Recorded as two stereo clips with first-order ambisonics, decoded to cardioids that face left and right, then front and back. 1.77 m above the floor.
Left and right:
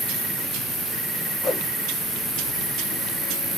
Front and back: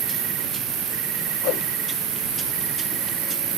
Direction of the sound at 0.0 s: 175° left.